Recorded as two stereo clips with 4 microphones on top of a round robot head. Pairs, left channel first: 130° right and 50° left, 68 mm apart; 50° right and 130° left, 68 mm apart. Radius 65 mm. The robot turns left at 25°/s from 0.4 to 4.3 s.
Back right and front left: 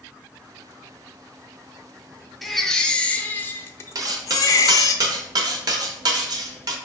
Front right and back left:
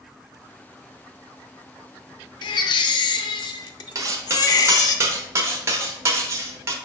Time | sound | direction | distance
2.4 | a baby crying | 40° right | 0.5 m
4.0 | cutlery clinking | 85° left | 0.9 m